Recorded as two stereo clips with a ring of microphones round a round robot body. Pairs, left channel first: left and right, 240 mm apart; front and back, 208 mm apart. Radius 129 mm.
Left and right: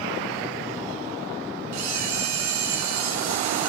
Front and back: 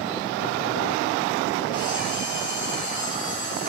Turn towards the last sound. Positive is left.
turn(degrees=-75)